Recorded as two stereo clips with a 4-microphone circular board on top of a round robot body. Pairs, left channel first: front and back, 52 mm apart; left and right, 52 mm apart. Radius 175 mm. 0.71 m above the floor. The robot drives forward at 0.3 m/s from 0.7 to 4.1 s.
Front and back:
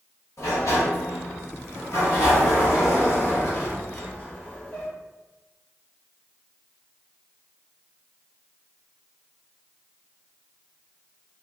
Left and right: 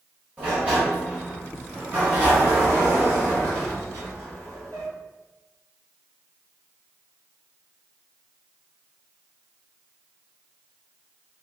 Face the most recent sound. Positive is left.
turn(degrees=-75)